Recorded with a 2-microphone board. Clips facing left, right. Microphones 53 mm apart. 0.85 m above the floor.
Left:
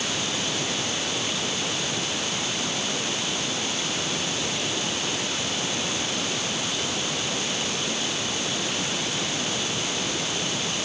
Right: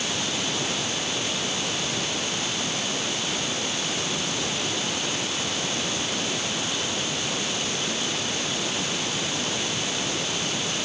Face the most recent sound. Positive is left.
No sound to turn to.